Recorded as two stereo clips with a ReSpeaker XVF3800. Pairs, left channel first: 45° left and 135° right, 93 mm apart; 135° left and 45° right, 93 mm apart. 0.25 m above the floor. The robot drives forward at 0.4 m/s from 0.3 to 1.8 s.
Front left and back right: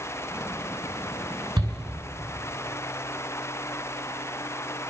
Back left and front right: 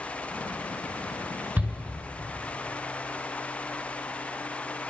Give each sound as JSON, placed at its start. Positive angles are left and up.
{"t": 1.6, "sound": "a shout", "azimuth_deg": -110, "distance_m": 4.0}